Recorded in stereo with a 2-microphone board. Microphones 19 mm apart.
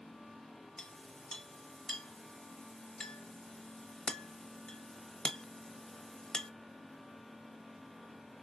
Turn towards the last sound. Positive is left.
turn(degrees=45)  # may be behind; listen again after turning